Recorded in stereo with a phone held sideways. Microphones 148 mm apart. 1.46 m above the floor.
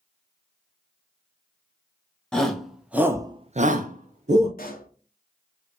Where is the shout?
5° left (ahead or behind), 1.2 m; by 4.5 s 50° right (ahead or behind), 0.9 m.